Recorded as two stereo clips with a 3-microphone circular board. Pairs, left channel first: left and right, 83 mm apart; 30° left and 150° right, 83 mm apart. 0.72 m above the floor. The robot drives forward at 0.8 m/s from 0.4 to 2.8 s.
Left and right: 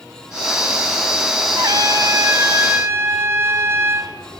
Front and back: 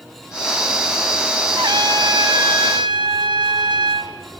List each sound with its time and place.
1.6 s a trumpet: 125° right, 1.4 m; by 4.1 s 145° right, 2 m